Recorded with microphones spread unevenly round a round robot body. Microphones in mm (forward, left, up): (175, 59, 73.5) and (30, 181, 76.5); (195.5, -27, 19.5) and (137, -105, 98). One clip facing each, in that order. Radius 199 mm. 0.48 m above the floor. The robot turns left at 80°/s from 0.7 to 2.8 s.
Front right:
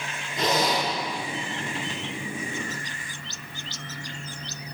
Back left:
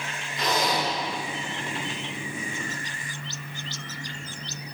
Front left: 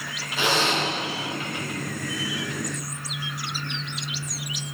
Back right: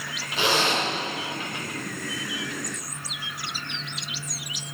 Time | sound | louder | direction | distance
0.4 | a zipper | front right 2 dB, even | 80° right | 3.5 m